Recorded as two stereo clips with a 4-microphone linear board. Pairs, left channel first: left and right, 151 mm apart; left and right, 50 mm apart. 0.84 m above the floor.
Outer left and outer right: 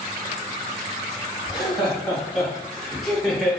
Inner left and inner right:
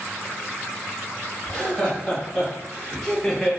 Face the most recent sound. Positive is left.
turn(degrees=0)  # may be behind; listen again after turning